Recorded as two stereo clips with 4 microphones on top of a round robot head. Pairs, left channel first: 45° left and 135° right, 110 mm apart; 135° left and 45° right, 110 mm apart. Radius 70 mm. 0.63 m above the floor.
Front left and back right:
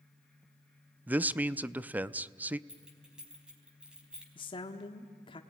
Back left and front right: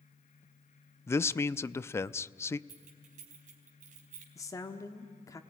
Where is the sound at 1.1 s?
170° left, 0.5 m.